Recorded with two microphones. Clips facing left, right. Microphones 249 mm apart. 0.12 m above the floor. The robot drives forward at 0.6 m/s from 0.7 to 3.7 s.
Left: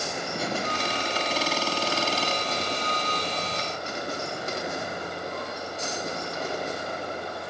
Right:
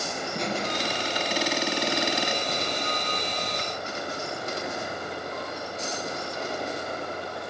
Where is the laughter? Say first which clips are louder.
Right 1 dB; 5° left (ahead or behind), 3 m.